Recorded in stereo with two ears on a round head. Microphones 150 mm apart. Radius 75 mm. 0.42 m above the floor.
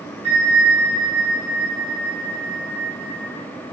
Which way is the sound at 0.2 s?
70° left (ahead or behind).